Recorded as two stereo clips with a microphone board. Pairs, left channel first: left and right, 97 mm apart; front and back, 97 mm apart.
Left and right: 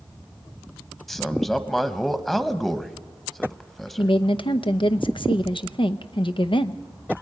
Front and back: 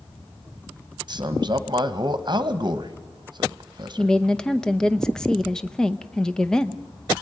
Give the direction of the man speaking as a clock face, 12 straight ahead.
6 o'clock.